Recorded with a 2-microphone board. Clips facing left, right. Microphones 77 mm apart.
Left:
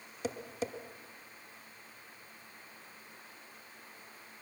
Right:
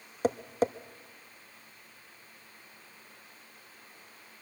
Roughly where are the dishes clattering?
No dishes clattering in this recording.